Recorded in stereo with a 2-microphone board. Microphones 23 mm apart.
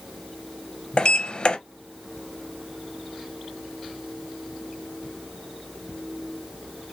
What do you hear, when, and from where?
1.0 s a sliding door: 45° left (ahead or behind), 0.5 m